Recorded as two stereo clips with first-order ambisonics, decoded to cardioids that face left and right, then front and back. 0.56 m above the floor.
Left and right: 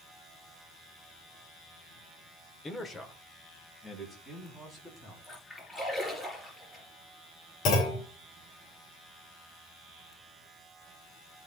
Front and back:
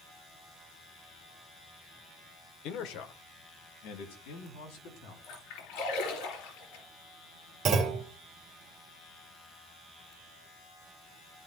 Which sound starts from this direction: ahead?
A splash, at 5.2 s.